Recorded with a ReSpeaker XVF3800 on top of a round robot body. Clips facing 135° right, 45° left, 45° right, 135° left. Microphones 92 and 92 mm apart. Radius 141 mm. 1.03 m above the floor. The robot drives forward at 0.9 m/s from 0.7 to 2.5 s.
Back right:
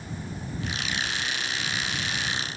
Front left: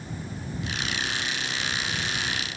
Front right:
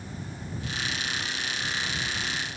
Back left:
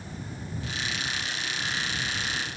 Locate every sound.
Only background noise.